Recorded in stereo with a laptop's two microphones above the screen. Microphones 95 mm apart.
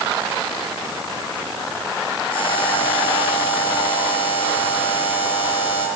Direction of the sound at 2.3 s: 60° left (ahead or behind).